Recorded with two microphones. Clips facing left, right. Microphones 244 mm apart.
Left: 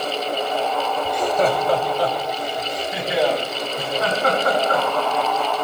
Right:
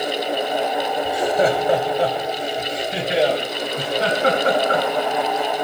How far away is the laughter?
About 0.9 m.